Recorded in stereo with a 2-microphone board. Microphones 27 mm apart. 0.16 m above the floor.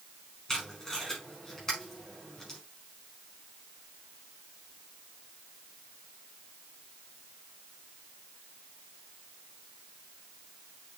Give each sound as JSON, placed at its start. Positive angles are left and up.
{"t": 0.5, "sound": "tape being pulled", "side_deg": 20, "distance_m": 5.5}